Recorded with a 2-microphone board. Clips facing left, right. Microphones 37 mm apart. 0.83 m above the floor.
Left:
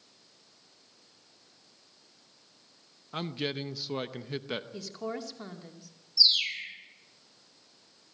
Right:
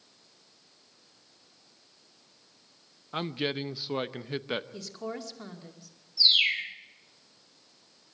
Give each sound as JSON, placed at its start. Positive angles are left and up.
{"t": 3.1, "sound": "a man speaking", "side_deg": -15, "distance_m": 0.7}
{"t": 4.7, "sound": "a woman speaking", "side_deg": 5, "distance_m": 2.5}
{"t": 6.2, "sound": "a bird", "side_deg": -35, "distance_m": 3.0}